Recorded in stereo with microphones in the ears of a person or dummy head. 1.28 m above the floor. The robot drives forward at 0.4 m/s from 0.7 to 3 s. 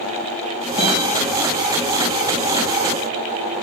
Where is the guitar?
35° left (ahead or behind), 4 m; by 1.0 s 30° left (ahead or behind), 4 m.